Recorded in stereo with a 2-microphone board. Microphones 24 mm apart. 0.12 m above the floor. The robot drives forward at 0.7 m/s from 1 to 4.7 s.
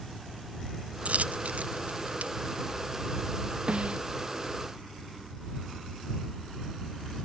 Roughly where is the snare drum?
Right.